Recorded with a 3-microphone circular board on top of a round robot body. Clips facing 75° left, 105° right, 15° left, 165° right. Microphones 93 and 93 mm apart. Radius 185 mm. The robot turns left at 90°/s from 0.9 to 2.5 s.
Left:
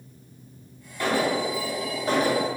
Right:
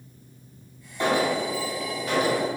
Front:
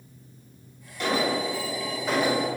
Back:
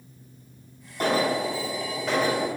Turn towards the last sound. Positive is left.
turn(degrees=65)